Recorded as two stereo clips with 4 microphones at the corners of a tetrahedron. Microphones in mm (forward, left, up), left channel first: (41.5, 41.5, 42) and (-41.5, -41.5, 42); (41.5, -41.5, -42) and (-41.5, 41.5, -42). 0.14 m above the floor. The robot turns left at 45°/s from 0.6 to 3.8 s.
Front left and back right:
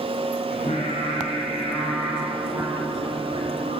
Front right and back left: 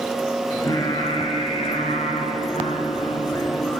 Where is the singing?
20° left, 1.5 m; by 3.8 s 125° right, 1.5 m.